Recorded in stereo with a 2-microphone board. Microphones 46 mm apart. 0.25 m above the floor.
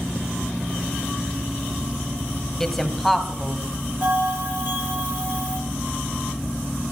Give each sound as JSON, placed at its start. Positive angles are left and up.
{"t": 2.6, "sound": "a woman speaking", "side_deg": 5, "distance_m": 1.4}
{"t": 4.0, "sound": "a bell", "side_deg": -45, "distance_m": 9.5}